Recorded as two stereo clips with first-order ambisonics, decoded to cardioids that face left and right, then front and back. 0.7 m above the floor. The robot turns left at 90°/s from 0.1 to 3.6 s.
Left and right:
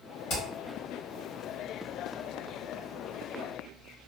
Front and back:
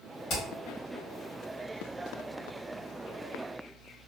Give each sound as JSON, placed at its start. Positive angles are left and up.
{"t": 0.3, "sound": "hammering", "azimuth_deg": 50, "distance_m": 1.6}